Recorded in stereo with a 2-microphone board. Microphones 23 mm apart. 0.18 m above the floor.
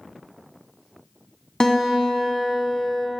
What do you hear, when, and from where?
1.6 s a guitar: 25° left (ahead or behind), 1.1 m